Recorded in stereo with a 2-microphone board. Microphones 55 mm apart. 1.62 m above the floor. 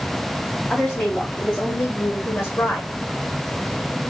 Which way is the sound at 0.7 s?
30° left (ahead or behind).